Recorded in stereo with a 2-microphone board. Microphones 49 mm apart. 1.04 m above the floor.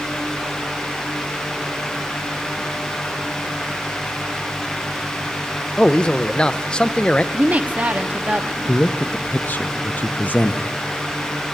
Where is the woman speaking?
30° right (ahead or behind), 1.1 m.